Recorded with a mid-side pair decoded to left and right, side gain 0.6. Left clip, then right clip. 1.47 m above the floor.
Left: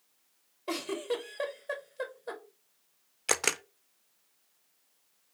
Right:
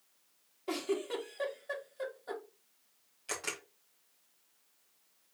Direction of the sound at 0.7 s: 25° left.